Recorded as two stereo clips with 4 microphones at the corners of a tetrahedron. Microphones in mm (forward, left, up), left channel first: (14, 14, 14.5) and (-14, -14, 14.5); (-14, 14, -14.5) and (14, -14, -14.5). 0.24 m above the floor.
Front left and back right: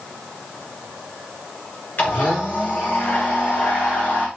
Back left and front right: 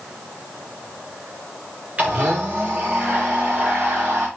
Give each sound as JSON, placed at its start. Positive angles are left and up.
{"t": 2.0, "sound": "a blender", "azimuth_deg": 10, "distance_m": 9.0}